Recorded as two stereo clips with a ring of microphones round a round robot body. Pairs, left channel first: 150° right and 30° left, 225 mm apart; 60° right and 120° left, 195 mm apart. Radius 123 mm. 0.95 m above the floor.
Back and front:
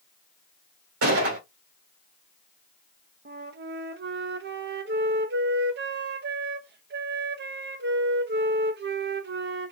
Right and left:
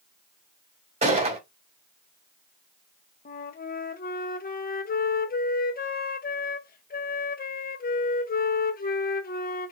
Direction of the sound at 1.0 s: 60° left.